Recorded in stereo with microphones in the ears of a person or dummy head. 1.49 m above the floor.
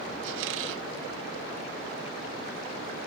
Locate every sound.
0.2 s a squeak: 75° right (ahead or behind)